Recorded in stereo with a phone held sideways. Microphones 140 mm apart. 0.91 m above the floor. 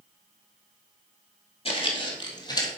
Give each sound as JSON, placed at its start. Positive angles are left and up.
{"t": 1.6, "sound": "footsteps", "side_deg": 40, "distance_m": 1.7}